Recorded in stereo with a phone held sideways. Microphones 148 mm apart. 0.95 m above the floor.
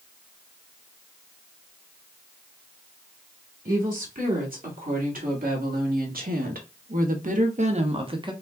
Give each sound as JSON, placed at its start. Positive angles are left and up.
{"t": 3.6, "sound": "a woman speaking", "side_deg": -70, "distance_m": 2.5}